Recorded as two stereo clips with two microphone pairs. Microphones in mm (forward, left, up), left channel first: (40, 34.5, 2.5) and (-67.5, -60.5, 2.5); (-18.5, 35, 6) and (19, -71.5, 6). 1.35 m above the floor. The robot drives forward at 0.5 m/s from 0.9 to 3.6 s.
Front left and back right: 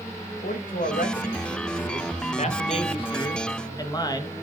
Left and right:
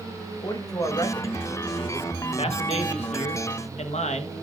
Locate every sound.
0.4 s a man speaking: 55° left, 1.7 m; by 4.4 s 105° left, 1.4 m